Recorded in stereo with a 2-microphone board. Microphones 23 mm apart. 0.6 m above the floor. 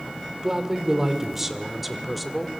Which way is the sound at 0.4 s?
25° right (ahead or behind).